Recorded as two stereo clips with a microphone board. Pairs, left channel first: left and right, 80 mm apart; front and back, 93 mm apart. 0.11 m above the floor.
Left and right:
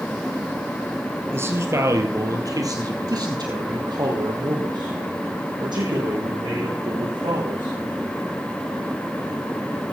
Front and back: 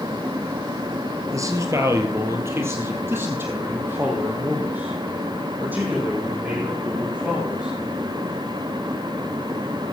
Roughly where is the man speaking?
Behind right.